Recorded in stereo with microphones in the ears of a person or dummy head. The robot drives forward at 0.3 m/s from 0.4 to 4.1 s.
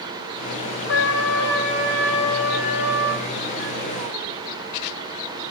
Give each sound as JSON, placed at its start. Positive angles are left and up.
{"t": 0.9, "sound": "a trumpet", "side_deg": 70, "distance_m": 4.0}